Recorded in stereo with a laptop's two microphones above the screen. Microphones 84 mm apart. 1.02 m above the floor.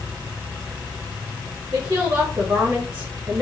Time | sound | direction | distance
1.7 | a woman speaking | 55° right (ahead or behind) | 1.2 m